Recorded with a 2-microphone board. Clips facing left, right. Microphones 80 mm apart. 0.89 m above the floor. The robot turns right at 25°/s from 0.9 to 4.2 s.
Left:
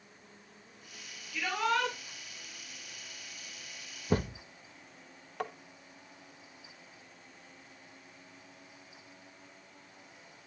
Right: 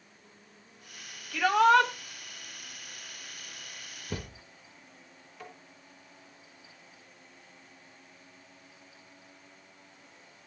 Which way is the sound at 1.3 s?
80° right.